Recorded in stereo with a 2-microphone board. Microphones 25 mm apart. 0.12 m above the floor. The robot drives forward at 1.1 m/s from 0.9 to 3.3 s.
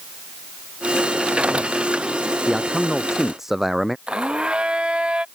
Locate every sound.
2.5 s a man speaking: 15° right (ahead or behind)
4.1 s a blender: 35° right (ahead or behind)